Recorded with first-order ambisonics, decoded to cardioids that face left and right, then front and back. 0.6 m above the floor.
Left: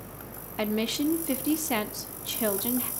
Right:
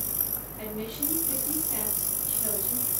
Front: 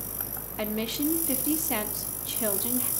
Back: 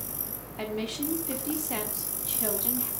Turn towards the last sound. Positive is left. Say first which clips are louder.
# left 8 dB, front 2 dB
turn(degrees=75)